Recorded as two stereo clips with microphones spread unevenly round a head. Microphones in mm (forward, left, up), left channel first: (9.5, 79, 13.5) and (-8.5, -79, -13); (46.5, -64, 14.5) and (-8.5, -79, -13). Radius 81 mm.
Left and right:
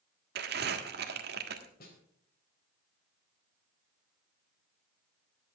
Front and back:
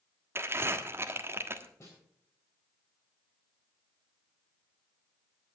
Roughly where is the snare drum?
Ahead left.